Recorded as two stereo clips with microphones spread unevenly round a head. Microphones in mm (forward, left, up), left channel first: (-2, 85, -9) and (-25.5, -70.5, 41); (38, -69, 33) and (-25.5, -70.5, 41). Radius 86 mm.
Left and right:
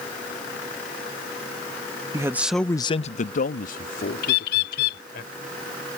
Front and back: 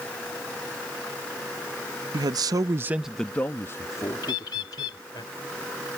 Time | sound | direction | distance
2.1 | a man speaking | 175° right | ?
4.2 | a bird | 40° left | ?